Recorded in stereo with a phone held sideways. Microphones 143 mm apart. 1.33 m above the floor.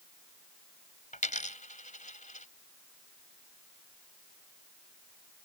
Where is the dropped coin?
60° left (ahead or behind).